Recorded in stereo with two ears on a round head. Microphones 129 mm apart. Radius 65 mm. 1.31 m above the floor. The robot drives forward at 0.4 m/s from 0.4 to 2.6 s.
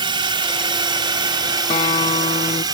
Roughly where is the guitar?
Left.